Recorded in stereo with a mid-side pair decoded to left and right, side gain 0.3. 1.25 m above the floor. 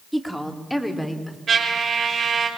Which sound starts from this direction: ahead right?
A trumpet, at 1.5 s.